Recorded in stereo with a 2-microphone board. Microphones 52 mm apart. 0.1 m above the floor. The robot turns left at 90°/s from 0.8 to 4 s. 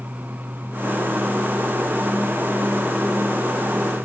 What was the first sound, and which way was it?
Only background noise.